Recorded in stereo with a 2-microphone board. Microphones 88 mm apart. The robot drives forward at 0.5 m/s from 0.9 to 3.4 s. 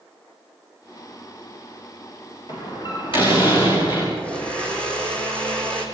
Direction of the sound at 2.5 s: 65° left (ahead or behind).